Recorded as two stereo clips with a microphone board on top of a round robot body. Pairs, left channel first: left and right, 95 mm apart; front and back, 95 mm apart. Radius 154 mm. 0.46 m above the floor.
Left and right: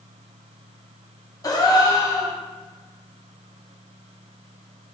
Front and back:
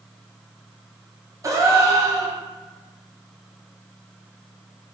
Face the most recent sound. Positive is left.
turn(degrees=130)